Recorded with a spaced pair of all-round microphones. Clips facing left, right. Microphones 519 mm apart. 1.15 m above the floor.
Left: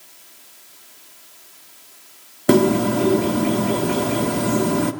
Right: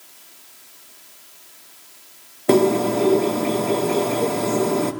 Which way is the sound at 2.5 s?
35° left (ahead or behind).